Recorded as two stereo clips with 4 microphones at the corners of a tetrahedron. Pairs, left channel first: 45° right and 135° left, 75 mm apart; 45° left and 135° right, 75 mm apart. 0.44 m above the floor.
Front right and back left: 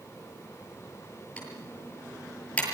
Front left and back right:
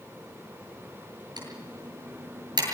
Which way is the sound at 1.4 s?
120° right.